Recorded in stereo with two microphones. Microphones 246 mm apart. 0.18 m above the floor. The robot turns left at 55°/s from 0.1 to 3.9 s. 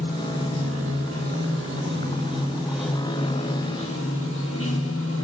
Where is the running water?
30° right, 4 m; by 5.2 s 120° left, 4 m.